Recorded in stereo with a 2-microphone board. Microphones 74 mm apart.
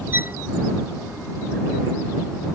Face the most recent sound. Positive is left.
turn(degrees=-30)  # may be behind; listen again after turning